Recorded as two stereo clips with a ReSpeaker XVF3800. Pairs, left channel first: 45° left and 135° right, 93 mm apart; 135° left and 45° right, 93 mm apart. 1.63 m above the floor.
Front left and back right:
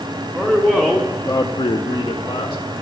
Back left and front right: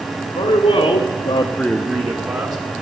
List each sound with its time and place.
0.3 s a man speaking: 150° left, 1.6 m; by 2.6 s 5° left, 1.6 m